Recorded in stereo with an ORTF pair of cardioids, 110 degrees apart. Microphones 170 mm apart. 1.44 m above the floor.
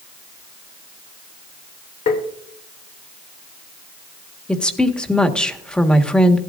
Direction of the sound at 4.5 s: 5° left.